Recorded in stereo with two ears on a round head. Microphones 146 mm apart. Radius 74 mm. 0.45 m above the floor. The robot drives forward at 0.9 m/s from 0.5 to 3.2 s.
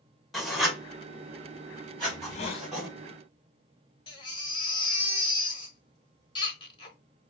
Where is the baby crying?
30° left (ahead or behind), 1.1 m.